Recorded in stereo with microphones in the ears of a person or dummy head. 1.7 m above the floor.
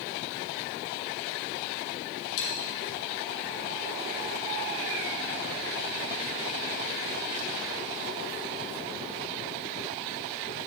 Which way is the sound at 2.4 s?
65° left (ahead or behind).